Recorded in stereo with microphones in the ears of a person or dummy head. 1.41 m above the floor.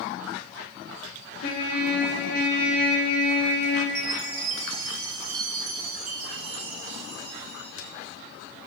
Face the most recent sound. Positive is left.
turn(degrees=-50)  # may be behind; listen again after turning